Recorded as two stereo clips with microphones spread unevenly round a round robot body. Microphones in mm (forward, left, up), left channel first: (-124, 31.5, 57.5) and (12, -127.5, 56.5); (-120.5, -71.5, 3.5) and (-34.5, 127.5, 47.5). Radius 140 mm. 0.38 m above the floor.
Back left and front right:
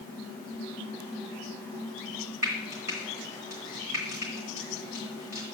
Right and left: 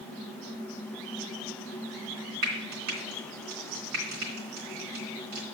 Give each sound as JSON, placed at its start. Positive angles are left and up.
{"t": 2.4, "sound": "frying", "azimuth_deg": 30, "distance_m": 2.5}